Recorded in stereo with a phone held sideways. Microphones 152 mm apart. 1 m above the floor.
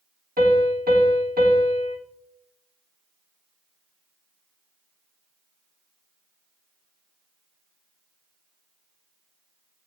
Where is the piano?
70° right (ahead or behind), 1.4 m.